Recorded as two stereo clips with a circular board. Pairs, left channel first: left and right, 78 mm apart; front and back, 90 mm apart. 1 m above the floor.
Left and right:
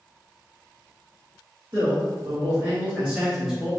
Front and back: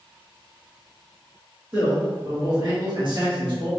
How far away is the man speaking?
About 1.6 m.